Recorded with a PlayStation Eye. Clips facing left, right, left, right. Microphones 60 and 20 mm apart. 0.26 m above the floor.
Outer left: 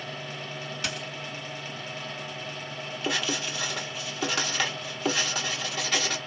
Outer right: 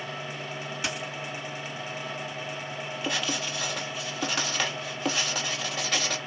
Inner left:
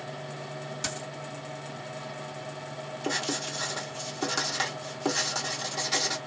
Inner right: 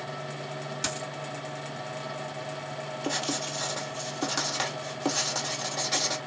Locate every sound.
0.8 s a dropped coin: 15° right (ahead or behind), 1.8 m
3.0 s writing: centre (ahead or behind), 1.4 m